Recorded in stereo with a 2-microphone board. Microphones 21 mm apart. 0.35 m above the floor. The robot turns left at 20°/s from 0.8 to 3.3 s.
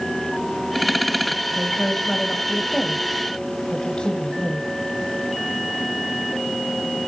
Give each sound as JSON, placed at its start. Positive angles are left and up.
{"t": 1.6, "sound": "a woman speaking", "azimuth_deg": 175, "distance_m": 1.8}